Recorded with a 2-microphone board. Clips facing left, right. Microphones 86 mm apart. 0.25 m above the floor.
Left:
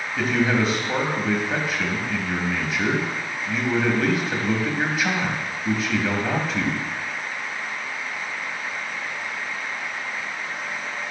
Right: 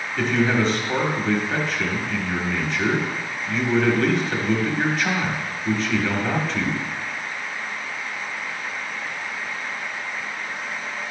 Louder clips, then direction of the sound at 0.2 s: Right 1 dB; 5° left (ahead or behind).